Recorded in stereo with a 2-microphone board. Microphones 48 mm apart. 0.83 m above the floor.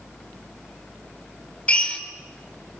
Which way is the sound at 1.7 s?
25° left (ahead or behind).